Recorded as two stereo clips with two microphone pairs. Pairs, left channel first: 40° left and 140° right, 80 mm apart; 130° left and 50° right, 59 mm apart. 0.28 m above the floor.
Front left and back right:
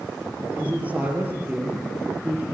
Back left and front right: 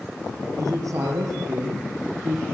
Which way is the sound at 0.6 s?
70° right.